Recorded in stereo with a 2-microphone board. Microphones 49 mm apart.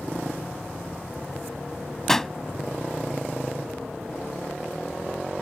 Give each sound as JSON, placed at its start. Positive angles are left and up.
{"t": 2.1, "sound": "a pop", "side_deg": 10}